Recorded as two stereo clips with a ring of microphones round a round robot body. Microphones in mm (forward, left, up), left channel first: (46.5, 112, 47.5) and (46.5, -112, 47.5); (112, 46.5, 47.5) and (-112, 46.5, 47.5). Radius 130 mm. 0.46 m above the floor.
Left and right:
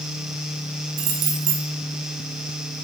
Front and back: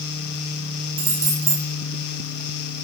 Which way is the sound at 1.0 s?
100° right.